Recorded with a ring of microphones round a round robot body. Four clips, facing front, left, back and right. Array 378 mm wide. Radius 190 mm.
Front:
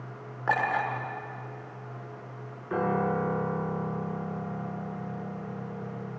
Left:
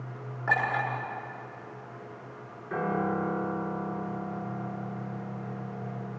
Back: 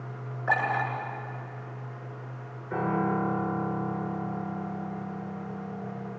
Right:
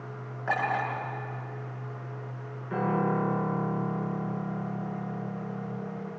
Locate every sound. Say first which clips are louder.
0.5 s a clink: even, even; 5° right, 8 m
2.7 s a piano: right 2 dB, even; 5° right, 7.5 m